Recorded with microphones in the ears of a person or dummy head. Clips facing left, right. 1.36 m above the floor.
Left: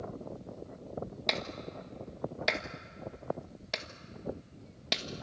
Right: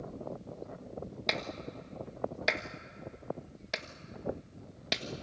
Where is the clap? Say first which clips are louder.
Right 2 dB; 5° right (ahead or behind), 1.2 m.